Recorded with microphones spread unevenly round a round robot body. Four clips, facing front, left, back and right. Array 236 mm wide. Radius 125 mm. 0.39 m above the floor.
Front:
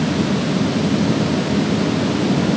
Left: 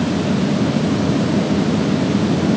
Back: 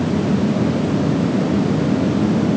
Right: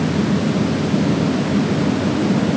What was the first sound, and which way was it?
Only background noise.